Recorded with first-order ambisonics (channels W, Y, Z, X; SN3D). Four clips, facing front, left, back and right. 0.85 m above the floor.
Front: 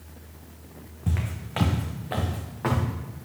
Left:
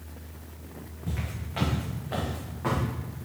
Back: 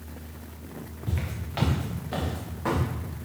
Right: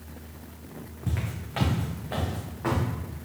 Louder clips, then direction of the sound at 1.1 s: Right 2 dB, front 4 dB; 25° right.